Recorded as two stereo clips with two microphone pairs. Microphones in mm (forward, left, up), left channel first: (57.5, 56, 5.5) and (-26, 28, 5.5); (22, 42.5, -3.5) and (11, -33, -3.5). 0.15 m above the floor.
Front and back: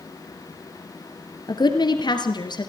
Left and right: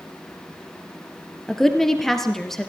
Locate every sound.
1.5 s a woman speaking: 5° right, 2.5 m